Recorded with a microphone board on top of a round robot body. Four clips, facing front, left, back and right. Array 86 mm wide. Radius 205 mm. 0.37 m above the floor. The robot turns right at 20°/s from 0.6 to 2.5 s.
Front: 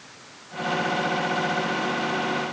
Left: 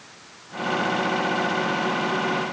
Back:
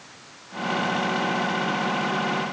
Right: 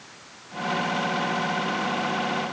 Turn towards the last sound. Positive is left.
No sound to turn to.